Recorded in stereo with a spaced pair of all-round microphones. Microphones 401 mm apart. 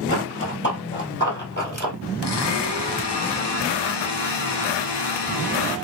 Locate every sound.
0.1 s running footsteps: 30° left (ahead or behind), 2 m; by 1.9 s 25° left (ahead or behind), 1.7 m
2.2 s a blender: 80° left, 0.6 m